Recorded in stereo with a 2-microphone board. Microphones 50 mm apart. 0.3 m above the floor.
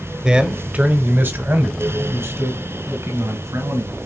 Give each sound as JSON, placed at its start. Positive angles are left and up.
{"t": 0.2, "sound": "a man speaking", "side_deg": -15, "distance_m": 1.1}